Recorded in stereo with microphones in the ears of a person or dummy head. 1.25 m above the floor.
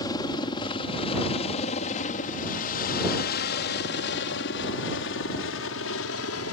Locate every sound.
0.0 s a helicopter: 20° left (ahead or behind); by 6.5 s 70° left (ahead or behind)